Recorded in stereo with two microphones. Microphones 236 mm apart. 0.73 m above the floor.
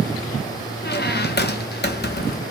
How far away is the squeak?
About 0.6 m.